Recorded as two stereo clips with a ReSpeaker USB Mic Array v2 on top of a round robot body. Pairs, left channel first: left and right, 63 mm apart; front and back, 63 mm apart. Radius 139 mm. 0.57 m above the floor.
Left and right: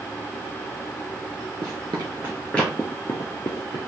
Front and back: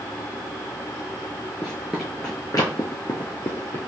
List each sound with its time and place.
1.6 s running footsteps: 110° right, 0.6 m; by 3.8 s 55° left, 0.9 m